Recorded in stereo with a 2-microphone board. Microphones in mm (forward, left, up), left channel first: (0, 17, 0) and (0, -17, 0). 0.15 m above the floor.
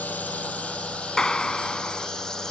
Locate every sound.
0.0 s a drone: 55° left (ahead or behind); by 2.5 s 15° left (ahead or behind)
1.2 s a clap: 20° left (ahead or behind)